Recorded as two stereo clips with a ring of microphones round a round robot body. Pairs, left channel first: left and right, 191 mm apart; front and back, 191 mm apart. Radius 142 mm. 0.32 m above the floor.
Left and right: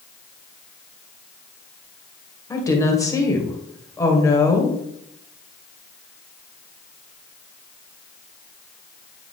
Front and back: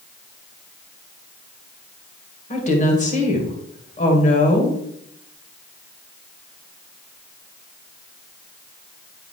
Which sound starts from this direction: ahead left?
A woman speaking, at 2.5 s.